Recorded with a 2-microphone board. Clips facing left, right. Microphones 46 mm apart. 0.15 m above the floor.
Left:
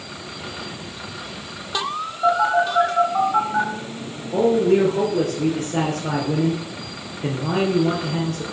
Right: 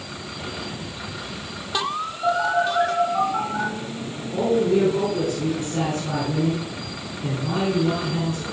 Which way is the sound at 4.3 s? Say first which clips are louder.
Left 3 dB; 60° left (ahead or behind).